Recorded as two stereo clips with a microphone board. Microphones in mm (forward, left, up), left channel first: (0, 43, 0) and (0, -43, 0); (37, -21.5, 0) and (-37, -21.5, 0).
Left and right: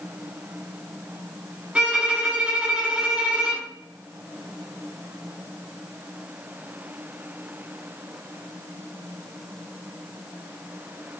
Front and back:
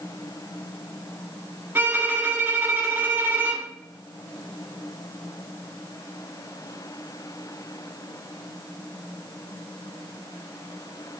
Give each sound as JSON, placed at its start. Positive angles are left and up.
{"t": 1.8, "sound": "a violin", "azimuth_deg": -155, "distance_m": 0.9}